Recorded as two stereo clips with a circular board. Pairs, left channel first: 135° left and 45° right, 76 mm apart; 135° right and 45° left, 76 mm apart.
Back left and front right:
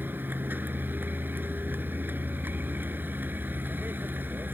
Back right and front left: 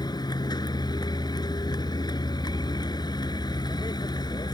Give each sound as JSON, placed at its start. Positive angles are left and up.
{"t": 0.0, "sound": "a vehicle", "azimuth_deg": -110}